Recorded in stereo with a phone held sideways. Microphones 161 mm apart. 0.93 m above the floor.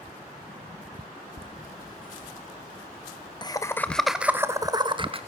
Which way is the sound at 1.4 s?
70° left (ahead or behind).